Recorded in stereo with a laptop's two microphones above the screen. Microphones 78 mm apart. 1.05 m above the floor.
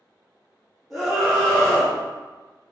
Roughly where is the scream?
Centre.